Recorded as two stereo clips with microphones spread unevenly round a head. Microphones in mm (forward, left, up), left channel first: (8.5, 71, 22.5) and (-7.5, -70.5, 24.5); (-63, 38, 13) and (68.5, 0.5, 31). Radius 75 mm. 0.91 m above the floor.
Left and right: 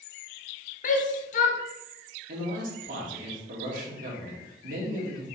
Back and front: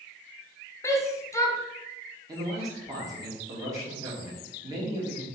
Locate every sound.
0.8 s a shout: 105° left, 0.8 m
2.3 s a man speaking: 85° right, 1.4 m